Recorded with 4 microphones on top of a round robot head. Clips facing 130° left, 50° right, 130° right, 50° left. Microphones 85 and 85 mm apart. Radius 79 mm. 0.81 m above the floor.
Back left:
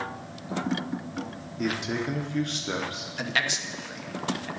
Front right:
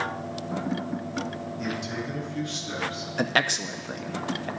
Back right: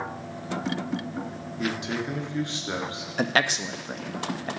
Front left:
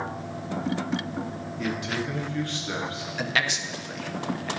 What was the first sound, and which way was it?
A man speaking, 160° left.